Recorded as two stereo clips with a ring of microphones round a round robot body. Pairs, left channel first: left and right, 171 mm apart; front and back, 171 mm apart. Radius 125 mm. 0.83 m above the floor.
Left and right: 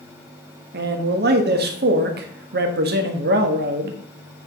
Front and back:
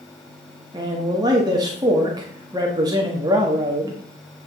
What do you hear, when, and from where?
0.7 s a man speaking: 110° right, 1.3 m